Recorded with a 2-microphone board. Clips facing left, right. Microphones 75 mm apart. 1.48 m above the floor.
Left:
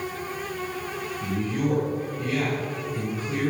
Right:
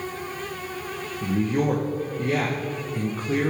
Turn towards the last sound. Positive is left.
turn(degrees=-50)  # may be behind; listen again after turning